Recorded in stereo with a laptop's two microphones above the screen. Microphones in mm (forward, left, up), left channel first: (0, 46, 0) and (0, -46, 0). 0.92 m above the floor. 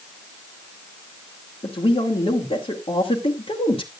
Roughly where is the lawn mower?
No lawn mower in this recording.